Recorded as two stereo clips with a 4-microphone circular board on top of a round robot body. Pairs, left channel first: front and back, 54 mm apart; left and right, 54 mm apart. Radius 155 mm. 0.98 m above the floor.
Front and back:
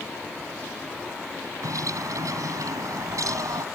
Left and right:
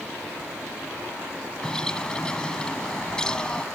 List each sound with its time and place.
1.6 s a bird: 165° left